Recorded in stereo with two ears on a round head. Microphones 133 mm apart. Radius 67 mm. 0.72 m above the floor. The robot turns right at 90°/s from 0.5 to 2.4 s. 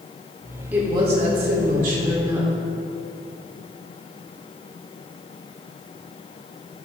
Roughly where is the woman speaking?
Behind.